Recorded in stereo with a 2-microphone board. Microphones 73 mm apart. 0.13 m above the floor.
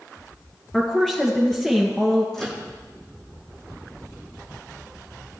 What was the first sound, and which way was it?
A woman speaking, 10° left (ahead or behind).